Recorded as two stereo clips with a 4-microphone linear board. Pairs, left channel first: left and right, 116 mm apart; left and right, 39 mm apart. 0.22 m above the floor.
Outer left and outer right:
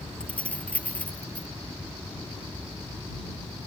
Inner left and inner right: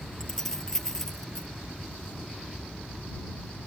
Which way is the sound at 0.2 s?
10° left (ahead or behind).